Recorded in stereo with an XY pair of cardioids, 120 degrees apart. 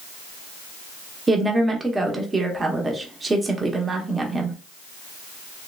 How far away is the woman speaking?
About 0.9 m.